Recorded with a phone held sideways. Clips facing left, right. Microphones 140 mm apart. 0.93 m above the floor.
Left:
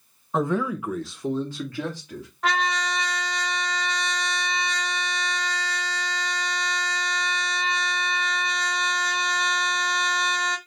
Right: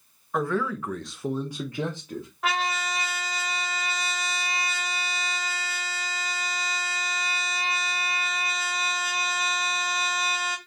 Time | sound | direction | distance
0.3 | a man speaking | 20° left (ahead or behind) | 0.9 m
2.4 | a trumpet | 5° right (ahead or behind) | 0.9 m